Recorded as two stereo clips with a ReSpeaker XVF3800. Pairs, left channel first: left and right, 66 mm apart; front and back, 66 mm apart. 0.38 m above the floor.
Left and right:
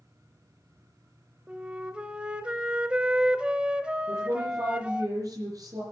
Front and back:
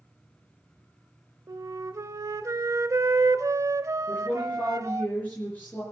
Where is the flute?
160° right, 0.8 m.